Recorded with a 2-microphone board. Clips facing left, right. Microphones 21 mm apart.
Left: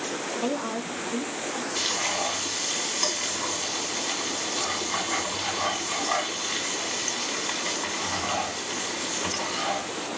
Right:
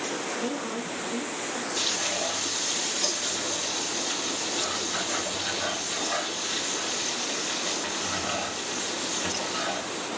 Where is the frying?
80° left, 3.5 m.